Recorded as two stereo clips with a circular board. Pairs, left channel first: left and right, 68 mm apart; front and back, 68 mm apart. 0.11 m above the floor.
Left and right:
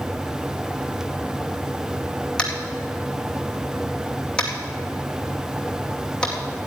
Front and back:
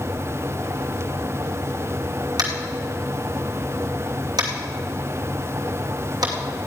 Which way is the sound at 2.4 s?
165° left.